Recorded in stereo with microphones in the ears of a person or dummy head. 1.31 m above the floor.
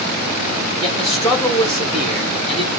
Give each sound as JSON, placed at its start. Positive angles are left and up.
{"t": 0.8, "sound": "a man speaking", "side_deg": 0, "distance_m": 1.4}